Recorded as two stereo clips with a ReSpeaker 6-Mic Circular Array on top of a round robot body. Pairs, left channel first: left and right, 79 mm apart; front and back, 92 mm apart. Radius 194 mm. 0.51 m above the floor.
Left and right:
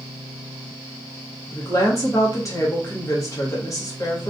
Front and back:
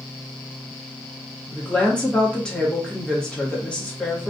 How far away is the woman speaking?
About 1.1 m.